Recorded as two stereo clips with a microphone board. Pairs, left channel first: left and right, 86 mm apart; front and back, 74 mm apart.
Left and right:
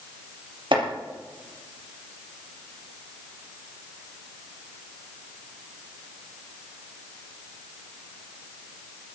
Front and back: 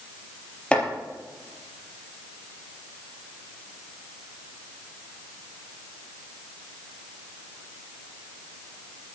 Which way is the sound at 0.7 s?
75° right.